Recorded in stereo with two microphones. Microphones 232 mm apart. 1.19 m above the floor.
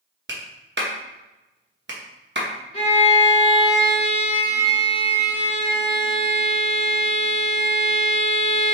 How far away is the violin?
About 1.4 m.